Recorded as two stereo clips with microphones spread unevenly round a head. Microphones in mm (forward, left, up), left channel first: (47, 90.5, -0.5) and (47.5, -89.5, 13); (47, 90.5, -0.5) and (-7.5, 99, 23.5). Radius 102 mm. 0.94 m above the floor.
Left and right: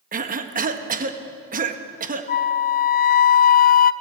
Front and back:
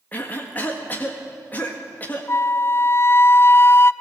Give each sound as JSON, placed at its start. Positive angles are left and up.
{"t": 0.1, "sound": "a cough", "azimuth_deg": -50, "distance_m": 1.7}
{"t": 2.3, "sound": "a flute", "azimuth_deg": 45, "distance_m": 0.6}